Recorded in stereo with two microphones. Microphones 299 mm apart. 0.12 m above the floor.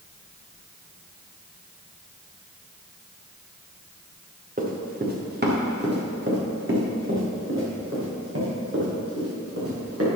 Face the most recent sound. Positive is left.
turn(degrees=-50)  # may be behind; listen again after turning